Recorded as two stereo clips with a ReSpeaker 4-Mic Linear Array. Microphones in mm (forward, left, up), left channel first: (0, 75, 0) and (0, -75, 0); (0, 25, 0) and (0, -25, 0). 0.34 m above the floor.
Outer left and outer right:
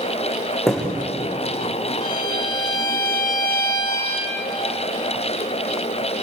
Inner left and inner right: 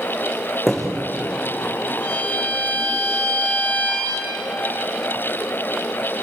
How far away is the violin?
About 4.5 m.